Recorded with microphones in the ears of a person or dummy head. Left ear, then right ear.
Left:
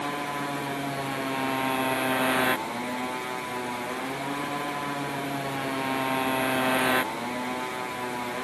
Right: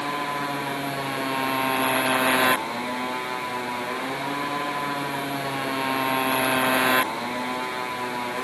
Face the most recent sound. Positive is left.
turn(degrees=-15)  # may be behind; listen again after turning